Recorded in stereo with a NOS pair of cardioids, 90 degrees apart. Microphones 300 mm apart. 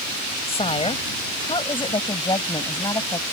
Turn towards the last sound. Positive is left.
turn(degrees=15)